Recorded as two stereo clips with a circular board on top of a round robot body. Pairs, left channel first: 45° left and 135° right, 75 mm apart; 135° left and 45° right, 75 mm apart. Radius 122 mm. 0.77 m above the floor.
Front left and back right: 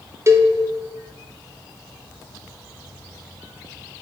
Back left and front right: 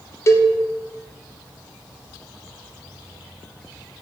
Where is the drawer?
No drawer in this recording.